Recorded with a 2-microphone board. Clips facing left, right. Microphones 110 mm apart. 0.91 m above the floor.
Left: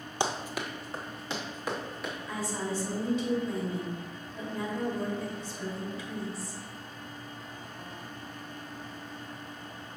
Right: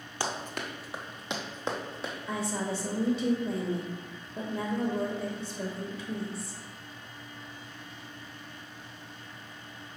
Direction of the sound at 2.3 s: 60° right (ahead or behind).